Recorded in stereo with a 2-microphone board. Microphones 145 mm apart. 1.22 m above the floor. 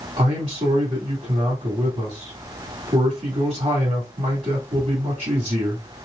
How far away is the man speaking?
About 1.9 m.